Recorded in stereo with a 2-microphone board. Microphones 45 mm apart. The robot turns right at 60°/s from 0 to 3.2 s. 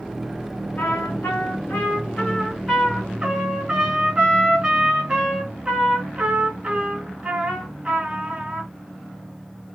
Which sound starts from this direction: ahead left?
A trumpet, at 0.8 s.